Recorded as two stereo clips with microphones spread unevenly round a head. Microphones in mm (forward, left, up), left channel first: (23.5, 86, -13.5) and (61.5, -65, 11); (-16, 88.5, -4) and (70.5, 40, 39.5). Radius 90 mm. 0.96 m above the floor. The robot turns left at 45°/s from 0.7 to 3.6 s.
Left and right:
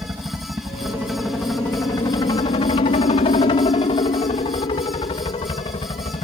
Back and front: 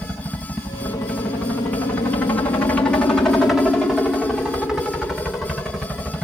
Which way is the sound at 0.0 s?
145° right.